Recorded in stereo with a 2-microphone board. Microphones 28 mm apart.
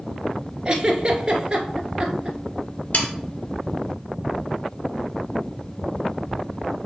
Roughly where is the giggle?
Right.